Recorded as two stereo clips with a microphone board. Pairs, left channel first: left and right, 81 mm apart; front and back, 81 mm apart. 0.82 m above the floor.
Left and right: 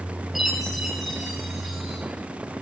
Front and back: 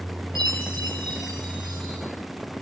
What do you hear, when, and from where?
0.3 s a chime: straight behind, 7 m